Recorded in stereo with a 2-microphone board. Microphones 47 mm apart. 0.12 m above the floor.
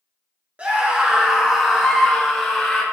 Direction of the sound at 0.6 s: 30° right (ahead or behind).